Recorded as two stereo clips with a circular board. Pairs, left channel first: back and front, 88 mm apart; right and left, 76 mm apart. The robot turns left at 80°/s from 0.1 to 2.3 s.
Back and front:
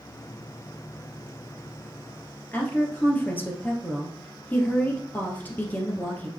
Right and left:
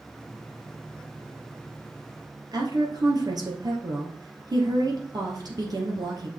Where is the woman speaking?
115° left, 2.5 m.